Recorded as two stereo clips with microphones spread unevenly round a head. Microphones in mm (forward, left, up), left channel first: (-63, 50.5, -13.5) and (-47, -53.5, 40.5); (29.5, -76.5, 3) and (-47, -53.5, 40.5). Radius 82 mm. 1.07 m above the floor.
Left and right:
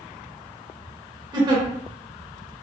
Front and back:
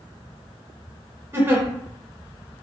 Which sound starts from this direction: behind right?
A giggle, at 1.3 s.